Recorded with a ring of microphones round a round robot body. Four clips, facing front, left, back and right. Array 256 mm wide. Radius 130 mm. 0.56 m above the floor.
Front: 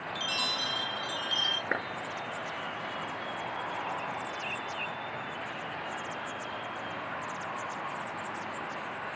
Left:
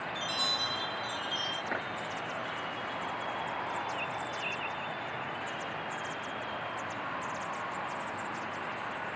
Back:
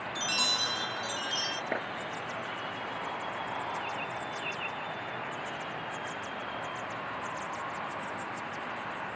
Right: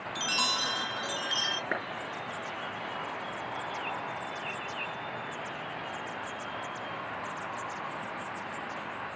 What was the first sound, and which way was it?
A chime, 100° right.